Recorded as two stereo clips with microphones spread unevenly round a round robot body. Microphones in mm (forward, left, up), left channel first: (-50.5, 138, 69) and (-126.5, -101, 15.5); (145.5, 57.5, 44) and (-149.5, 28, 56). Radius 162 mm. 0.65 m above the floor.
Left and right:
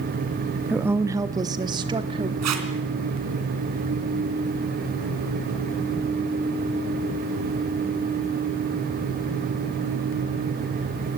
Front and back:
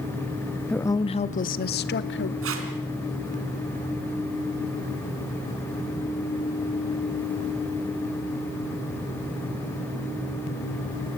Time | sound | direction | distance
0.7 | a woman speaking | 70° right | 0.5 m
2.4 | tape being pulled | 125° right | 3 m